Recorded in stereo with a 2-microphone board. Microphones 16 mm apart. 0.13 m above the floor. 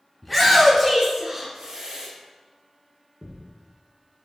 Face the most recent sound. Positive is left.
turn(degrees=-70)  # may be behind; listen again after turning